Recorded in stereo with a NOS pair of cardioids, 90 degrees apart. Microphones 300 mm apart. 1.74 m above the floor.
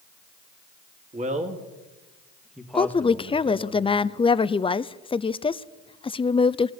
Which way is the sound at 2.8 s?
15° left.